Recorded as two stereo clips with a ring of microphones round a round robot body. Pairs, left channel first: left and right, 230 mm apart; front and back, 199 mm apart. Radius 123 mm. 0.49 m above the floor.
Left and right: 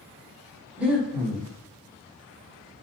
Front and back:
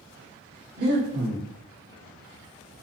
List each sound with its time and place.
0.8 s breathing: 170° right, 1.6 m